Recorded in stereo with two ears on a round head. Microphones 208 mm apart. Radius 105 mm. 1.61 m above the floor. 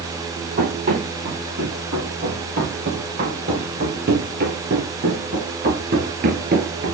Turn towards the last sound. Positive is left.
turn(degrees=-40)  # may be behind; listen again after turning